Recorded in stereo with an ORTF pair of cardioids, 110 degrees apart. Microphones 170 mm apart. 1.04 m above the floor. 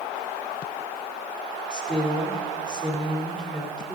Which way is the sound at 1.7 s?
5° left.